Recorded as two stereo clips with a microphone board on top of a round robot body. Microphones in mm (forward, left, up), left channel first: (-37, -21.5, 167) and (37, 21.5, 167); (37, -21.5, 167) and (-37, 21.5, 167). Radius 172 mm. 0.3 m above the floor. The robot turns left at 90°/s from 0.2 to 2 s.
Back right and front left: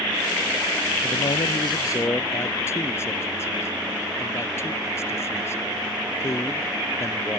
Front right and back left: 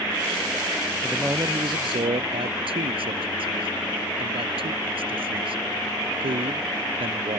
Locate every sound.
1.0 s a man speaking: 125° right; by 7.4 s 150° left